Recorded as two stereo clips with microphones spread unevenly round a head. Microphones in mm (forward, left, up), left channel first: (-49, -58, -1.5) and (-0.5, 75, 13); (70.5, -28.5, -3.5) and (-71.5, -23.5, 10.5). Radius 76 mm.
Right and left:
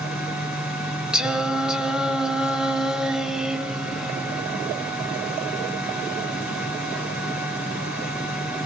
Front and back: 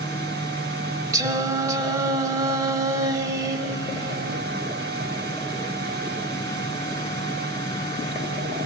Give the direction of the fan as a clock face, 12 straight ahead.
7 o'clock.